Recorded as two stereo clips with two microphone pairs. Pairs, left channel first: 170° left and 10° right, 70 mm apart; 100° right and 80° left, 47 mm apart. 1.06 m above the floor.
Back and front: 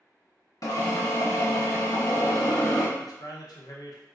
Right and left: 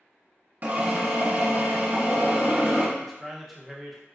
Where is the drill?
135° left, 0.6 m.